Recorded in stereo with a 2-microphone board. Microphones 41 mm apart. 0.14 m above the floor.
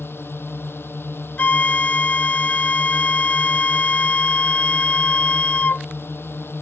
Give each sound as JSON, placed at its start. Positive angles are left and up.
{"t": 0.0, "sound": "a drone", "side_deg": 75}
{"t": 1.4, "sound": "a flute", "side_deg": 40}